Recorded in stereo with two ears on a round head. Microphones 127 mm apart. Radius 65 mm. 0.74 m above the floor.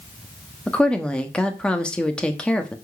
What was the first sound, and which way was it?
A woman speaking, 5° left (ahead or behind).